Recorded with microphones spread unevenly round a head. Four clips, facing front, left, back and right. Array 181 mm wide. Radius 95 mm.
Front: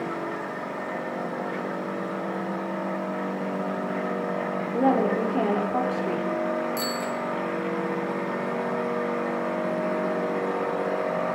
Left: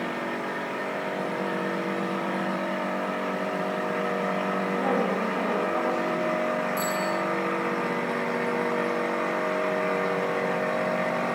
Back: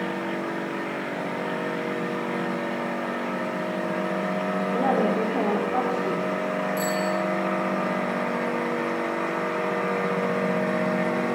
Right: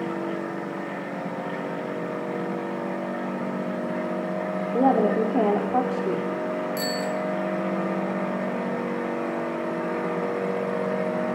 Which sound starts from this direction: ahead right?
A bicycle bell, at 6.8 s.